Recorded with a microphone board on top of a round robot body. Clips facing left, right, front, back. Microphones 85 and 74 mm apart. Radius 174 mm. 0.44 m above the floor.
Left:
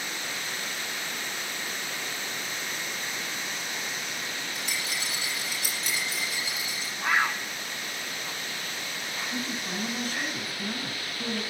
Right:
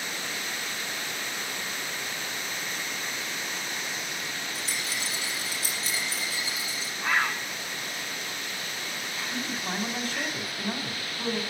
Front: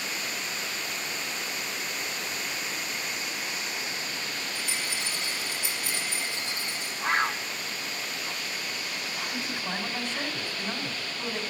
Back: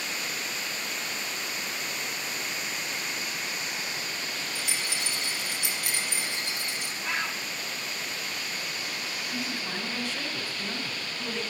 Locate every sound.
4.5 s a rattle: 150° right, 4.5 m
7.0 s a bird: 10° left, 1.1 m
9.3 s a man speaking: 70° right, 3.5 m